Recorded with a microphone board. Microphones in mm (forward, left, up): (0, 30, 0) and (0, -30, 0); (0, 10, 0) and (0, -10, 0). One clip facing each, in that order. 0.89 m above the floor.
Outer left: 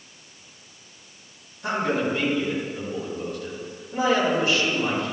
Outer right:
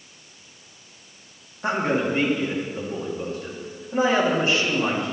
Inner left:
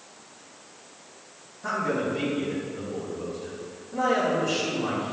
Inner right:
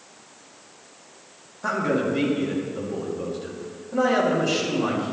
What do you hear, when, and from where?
1.6 s a man speaking: 35° right (ahead or behind), 2.0 m